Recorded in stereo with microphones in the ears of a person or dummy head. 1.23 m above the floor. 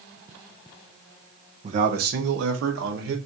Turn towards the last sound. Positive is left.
turn(degrees=-80)